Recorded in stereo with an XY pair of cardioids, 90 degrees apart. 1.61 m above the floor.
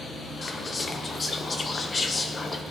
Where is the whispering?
35° left, 1.1 m.